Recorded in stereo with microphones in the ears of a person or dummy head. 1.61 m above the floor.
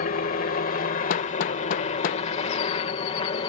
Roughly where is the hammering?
Left.